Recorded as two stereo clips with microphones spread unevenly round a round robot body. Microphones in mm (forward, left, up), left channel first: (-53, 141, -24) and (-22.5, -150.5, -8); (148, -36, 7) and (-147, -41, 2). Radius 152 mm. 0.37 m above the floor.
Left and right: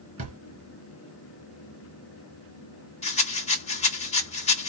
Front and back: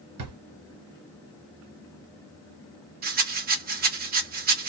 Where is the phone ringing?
I don't hear a phone ringing.